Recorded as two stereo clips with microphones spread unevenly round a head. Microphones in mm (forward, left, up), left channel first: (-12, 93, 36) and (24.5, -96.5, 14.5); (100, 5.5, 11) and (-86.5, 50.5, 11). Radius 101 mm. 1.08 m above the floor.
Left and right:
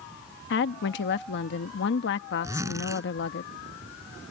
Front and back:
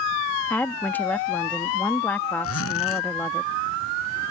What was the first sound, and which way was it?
A woman speaking, 70° left.